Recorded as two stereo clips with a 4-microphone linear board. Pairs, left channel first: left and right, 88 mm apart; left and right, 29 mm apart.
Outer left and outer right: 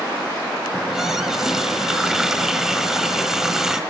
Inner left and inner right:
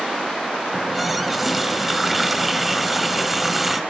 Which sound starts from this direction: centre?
A running tap, at 0.7 s.